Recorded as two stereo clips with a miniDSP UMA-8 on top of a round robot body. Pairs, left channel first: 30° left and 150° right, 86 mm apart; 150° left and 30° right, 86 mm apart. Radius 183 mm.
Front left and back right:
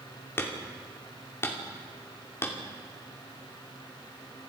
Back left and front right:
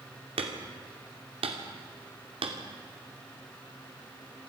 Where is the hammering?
35° right, 2.5 m.